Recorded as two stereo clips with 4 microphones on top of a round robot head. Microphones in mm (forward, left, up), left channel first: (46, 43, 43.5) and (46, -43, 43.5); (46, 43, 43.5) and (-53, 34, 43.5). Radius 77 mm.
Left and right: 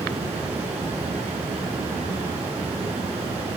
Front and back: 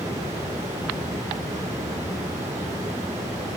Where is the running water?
105° right, 6 m.